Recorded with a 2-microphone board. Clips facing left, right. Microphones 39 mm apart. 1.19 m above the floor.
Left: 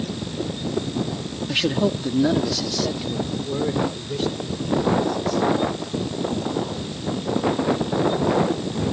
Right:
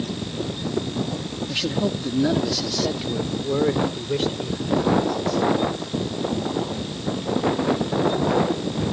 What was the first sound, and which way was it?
A man speaking, 30° left (ahead or behind).